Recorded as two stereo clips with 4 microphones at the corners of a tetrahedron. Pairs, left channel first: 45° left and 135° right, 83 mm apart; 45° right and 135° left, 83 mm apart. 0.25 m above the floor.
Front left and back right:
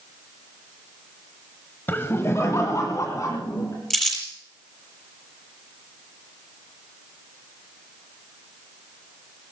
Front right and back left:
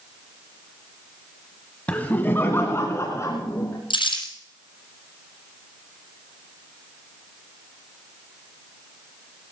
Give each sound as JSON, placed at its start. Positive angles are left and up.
{"t": 1.9, "sound": "laughter", "azimuth_deg": 10, "distance_m": 1.0}
{"t": 3.9, "sound": "crumpling", "azimuth_deg": -40, "distance_m": 7.0}